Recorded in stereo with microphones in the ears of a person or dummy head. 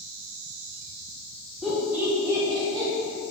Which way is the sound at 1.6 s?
5° right (ahead or behind).